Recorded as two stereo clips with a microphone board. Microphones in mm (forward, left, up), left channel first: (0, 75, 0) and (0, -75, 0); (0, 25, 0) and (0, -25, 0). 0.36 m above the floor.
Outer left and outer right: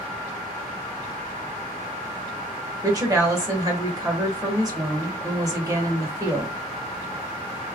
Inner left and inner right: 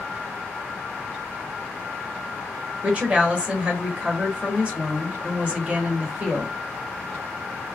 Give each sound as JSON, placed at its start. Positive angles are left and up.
{"t": 2.8, "sound": "a woman speaking", "side_deg": -25, "distance_m": 1.2}